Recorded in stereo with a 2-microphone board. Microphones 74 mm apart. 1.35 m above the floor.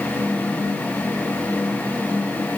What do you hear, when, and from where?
Only background noise.